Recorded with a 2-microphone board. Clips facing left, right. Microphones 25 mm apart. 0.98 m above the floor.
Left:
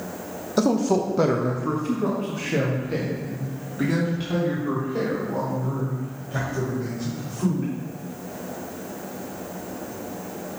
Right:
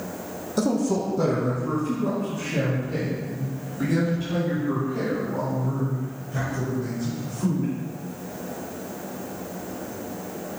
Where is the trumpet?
I don't hear a trumpet.